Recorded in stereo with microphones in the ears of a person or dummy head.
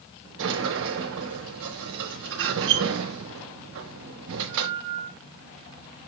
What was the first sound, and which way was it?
A sliding door, 75° right (ahead or behind).